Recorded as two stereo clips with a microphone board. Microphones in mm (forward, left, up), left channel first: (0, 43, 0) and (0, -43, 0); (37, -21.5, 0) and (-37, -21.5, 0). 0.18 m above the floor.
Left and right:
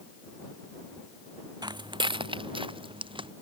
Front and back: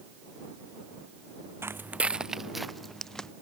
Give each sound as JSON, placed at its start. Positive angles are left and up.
{"t": 1.6, "sound": "footsteps", "azimuth_deg": -125}